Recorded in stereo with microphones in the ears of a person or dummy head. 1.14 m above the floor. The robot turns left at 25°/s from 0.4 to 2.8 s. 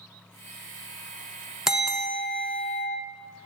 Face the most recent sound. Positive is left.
turn(degrees=10)  # may be behind; listen again after turning